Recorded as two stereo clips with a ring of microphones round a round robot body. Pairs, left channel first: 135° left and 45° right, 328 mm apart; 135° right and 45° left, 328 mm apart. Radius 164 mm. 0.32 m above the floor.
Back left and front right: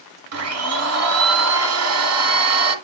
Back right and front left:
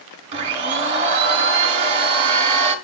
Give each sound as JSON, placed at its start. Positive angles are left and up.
{"t": 0.3, "sound": "a blender", "azimuth_deg": -20, "distance_m": 1.3}